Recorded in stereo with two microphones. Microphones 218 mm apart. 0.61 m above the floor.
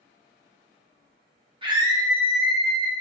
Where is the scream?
20° right (ahead or behind), 1.1 m; by 2.9 s 10° left (ahead or behind), 1.4 m.